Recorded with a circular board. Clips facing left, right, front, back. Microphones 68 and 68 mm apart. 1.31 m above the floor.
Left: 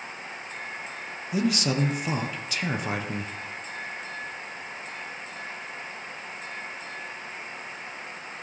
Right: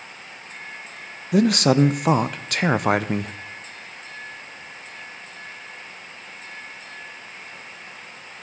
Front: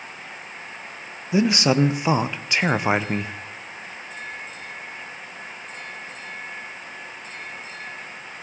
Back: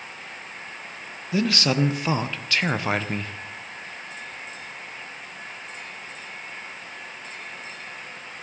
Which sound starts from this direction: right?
A man speaking, at 1.3 s.